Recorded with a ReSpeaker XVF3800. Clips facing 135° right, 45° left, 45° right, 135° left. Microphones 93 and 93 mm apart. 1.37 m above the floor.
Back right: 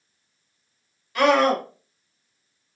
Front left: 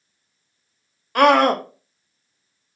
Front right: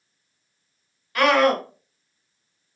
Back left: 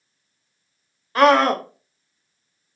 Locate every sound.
1.1 s a scream: 75° left, 0.7 m